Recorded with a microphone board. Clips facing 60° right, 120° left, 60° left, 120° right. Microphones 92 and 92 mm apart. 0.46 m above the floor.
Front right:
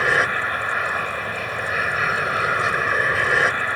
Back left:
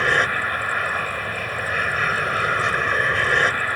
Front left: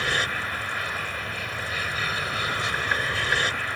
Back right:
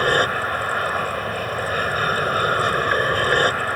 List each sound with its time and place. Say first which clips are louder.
0.0 s an aircraft: even, back right 8 dB; 145° right